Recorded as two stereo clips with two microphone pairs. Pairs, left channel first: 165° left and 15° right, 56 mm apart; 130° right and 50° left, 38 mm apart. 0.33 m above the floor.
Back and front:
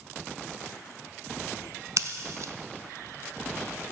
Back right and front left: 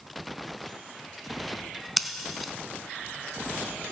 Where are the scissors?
40° right, 0.6 m.